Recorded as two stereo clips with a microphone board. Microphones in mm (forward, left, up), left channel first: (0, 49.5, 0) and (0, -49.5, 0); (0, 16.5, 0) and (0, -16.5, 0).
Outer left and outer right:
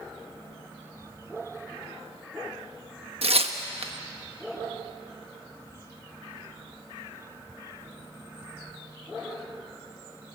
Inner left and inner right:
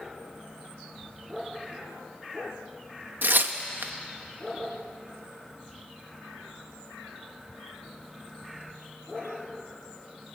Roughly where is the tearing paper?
Right.